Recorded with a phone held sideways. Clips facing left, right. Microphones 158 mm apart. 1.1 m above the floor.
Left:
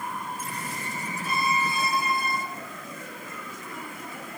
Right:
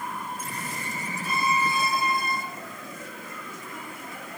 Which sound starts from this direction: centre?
A violin, at 1.2 s.